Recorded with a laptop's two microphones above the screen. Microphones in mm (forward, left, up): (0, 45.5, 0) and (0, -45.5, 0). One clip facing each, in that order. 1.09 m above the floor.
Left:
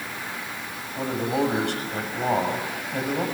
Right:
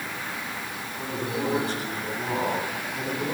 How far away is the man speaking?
About 7 m.